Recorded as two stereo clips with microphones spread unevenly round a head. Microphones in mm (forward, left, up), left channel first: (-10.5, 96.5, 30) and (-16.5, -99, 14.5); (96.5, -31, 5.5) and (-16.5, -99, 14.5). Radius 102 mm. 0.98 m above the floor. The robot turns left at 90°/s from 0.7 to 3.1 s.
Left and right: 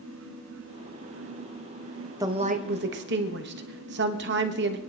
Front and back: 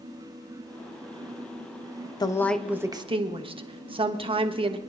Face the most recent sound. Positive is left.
turn(degrees=-100)